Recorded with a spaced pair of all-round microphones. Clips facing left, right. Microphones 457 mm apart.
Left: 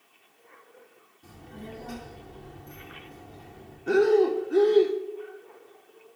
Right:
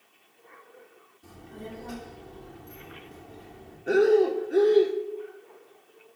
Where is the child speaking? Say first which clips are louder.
Right 1 dB; 10° left (ahead or behind), 2.5 m.